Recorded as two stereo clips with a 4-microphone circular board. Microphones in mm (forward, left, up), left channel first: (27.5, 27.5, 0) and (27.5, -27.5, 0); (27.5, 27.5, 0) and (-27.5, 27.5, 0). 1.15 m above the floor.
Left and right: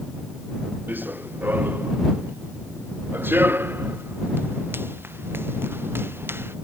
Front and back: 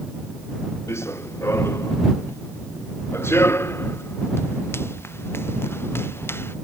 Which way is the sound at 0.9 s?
35° right.